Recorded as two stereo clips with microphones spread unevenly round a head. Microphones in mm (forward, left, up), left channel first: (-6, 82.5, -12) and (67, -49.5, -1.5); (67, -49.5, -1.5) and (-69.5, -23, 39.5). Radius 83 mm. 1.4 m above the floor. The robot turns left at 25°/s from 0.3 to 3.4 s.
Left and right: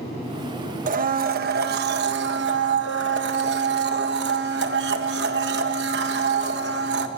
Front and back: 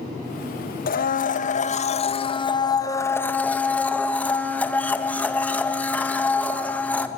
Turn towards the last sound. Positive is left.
turn(degrees=-90)